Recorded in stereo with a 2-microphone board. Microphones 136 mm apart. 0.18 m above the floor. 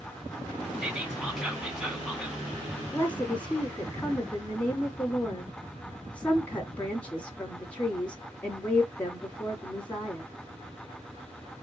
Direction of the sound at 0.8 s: 5° right (ahead or behind).